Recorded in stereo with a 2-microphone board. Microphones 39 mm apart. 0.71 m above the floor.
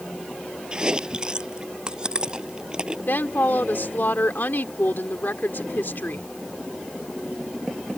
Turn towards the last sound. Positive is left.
turn(degrees=70)  # may be behind; listen again after turning